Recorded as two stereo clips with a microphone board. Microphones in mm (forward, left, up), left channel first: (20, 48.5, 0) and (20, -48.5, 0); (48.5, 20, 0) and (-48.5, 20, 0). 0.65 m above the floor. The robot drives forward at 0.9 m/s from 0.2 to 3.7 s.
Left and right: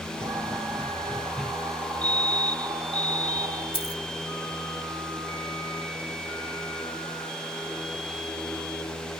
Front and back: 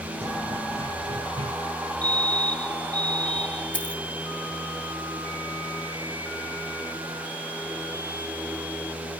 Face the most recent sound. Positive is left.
turn(degrees=75)